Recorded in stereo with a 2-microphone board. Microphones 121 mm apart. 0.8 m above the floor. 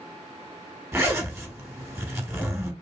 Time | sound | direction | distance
0.9 | a zipper | 20° right (ahead or behind) | 1.0 m